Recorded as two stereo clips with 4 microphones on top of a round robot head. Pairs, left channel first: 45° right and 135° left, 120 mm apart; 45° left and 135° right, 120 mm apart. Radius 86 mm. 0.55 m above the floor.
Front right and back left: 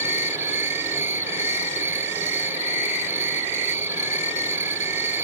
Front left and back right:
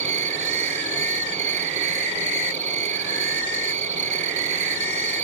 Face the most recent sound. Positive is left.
turn(degrees=-155)